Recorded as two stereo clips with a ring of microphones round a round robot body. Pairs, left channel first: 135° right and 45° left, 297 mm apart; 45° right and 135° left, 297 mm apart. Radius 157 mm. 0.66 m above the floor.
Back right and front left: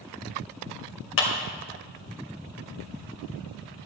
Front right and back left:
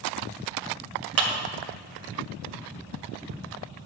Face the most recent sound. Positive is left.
turn(degrees=175)